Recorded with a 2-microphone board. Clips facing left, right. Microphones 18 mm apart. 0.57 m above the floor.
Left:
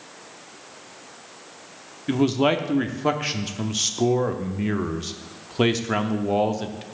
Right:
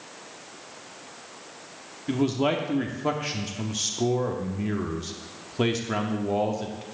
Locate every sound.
2.1 s a man speaking: 20° left (ahead or behind), 0.7 m